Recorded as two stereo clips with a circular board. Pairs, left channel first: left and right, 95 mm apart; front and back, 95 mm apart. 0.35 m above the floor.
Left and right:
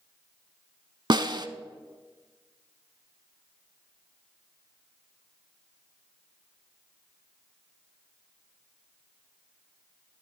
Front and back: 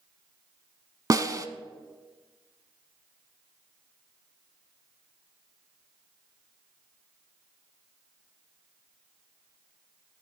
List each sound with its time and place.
1.1 s a snare drum: 130° right, 0.6 m